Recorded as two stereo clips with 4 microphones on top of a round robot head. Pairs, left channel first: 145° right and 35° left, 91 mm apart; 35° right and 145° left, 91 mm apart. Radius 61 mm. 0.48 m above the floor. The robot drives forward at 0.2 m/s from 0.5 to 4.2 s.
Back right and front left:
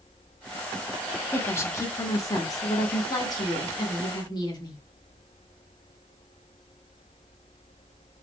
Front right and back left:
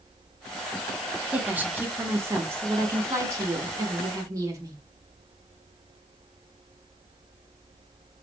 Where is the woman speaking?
160° right, 0.7 m; by 4.8 s 175° right, 1.1 m.